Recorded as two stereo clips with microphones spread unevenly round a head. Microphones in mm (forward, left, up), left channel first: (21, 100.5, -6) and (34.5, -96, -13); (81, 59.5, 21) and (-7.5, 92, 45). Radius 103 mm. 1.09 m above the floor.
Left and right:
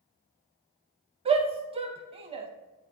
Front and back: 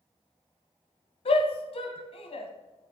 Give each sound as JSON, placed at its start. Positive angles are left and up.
{"t": 1.2, "sound": "a shout", "azimuth_deg": -25, "distance_m": 0.8}